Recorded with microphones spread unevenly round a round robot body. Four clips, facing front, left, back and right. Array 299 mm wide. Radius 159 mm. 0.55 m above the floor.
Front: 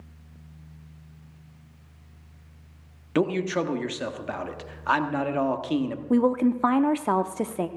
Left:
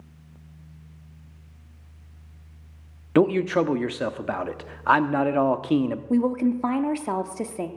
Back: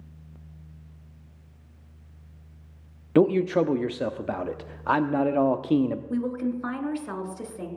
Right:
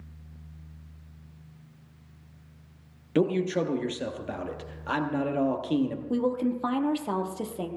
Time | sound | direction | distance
3.1 | a man speaking | 110° left | 0.7 m
6.1 | a woman speaking | 30° left | 0.9 m